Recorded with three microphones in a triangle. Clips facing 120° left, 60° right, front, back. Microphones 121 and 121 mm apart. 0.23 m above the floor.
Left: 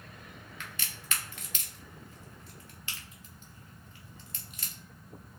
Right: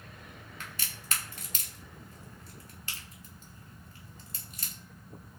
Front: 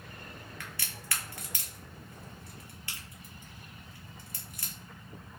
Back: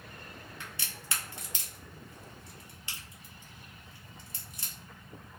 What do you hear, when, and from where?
0.6 s a crack: 115° right, 0.8 m